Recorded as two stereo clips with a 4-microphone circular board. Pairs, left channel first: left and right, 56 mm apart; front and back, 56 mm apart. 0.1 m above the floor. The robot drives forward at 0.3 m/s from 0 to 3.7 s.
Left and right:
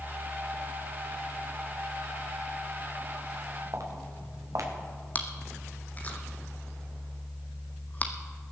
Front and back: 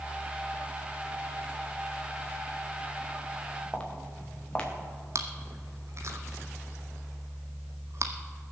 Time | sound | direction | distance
3.7 | footsteps | 70° right | 3 m
5.2 | chewing | 150° left | 1.3 m